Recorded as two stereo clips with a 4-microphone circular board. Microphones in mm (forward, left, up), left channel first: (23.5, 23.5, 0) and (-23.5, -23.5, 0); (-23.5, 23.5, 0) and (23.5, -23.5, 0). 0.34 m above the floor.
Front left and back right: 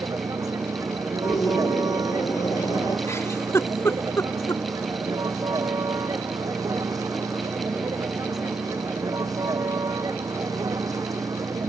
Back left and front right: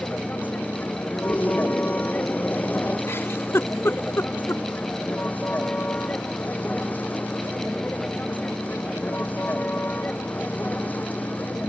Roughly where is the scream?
Left.